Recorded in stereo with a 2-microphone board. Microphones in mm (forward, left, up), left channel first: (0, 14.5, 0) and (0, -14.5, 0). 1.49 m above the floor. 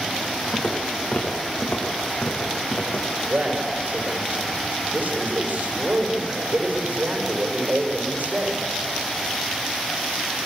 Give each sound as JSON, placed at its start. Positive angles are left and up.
{"t": 0.5, "sound": "footsteps", "side_deg": 55, "distance_m": 6.5}
{"t": 3.3, "sound": "a man speaking", "side_deg": -85, "distance_m": 5.0}